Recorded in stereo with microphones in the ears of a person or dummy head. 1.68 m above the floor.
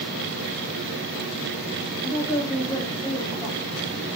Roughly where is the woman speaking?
Centre.